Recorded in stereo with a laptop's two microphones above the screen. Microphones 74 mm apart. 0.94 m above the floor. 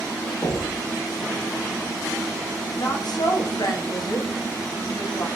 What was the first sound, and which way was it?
Knocking, 35° left (ahead or behind).